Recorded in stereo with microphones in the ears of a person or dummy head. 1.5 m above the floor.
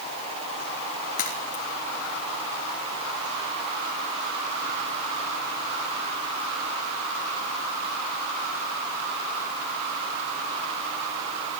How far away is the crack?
About 4.5 m.